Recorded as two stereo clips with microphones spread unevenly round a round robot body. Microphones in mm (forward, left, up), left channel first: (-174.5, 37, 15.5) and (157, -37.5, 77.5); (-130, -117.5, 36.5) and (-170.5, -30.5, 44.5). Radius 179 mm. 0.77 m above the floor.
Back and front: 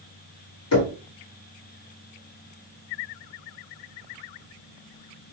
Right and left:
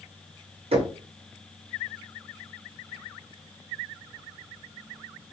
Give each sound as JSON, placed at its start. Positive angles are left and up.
{"t": 0.7, "sound": "knocking", "azimuth_deg": 120, "distance_m": 1.4}